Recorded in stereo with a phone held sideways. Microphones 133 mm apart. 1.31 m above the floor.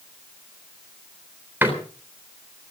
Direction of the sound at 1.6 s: 20° right (ahead or behind).